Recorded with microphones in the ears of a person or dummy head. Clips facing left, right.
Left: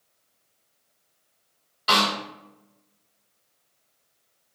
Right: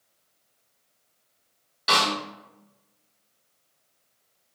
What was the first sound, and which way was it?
A snare drum, 5° left (ahead or behind).